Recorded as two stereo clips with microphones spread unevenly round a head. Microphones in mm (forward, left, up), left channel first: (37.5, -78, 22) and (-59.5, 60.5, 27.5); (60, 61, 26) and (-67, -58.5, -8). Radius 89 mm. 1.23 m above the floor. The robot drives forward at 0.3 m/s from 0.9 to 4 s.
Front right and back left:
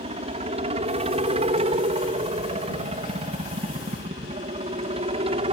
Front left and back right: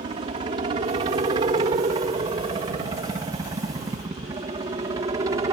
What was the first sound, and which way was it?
A helicopter, 175° left.